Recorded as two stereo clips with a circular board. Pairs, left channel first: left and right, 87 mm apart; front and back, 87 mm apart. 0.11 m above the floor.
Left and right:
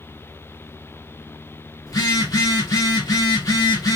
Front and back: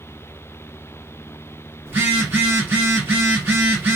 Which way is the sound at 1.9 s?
125° left.